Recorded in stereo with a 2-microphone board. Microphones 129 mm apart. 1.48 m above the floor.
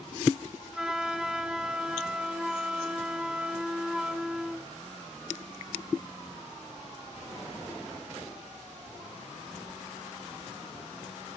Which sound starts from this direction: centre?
A flute, at 0.7 s.